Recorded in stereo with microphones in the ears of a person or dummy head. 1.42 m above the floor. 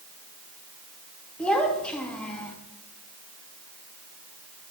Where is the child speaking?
5° left (ahead or behind), 1.5 m.